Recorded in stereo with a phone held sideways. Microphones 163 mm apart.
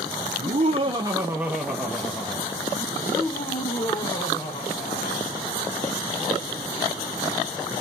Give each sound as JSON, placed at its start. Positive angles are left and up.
{"t": 0.4, "sound": "laughter", "side_deg": -45, "distance_m": 0.9}